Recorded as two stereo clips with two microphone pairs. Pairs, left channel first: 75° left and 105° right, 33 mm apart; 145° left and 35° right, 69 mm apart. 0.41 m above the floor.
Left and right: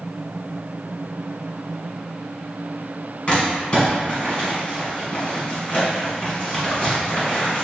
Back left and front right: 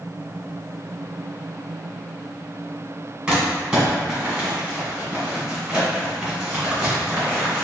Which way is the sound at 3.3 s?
35° left.